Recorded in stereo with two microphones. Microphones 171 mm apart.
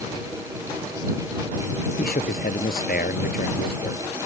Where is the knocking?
I don't hear knocking.